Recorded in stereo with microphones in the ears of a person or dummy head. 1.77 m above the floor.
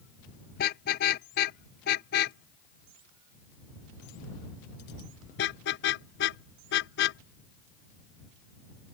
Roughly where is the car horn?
Left.